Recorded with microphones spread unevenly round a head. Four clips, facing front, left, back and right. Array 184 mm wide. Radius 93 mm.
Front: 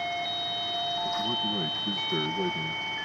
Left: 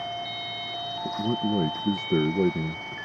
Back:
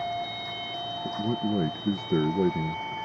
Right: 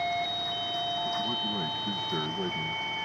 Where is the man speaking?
125° left.